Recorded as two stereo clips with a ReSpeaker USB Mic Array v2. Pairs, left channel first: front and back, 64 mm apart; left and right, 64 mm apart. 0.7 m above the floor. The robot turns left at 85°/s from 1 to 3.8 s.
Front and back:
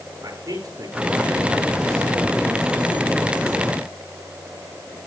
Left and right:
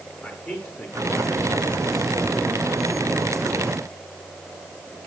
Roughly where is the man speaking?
Behind left.